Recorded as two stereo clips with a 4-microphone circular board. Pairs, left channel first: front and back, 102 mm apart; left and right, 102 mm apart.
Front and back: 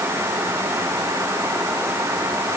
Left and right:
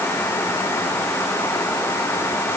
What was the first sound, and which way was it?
Only background noise.